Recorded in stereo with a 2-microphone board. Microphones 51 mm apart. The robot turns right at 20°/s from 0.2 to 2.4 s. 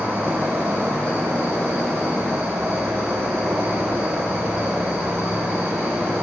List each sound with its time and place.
0.0 s an insect: 120° right, 3 m; by 6.2 s 75° right, 3 m